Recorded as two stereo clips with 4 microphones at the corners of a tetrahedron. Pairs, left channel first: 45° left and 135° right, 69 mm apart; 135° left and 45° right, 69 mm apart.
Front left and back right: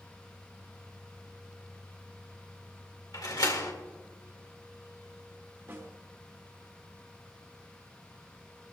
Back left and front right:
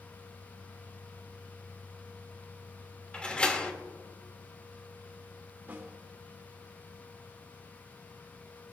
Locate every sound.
3.1 s a door slam: 60° left, 1.8 m
5.7 s a snare drum: 100° right, 1.7 m